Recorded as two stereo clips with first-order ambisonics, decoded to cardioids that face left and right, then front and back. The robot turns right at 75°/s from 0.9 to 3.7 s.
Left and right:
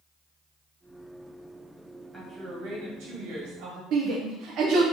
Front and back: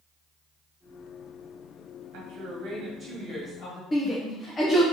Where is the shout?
65° right, 0.6 m.